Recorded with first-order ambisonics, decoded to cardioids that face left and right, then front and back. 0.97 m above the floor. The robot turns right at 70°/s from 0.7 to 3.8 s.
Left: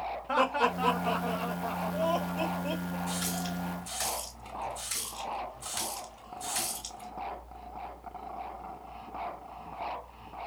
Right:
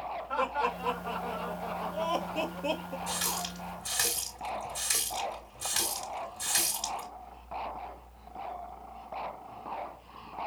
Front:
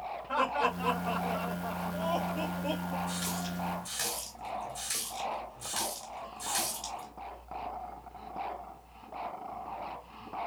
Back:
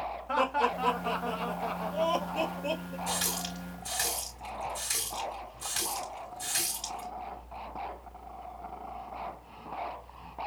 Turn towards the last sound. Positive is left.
turn(degrees=-100)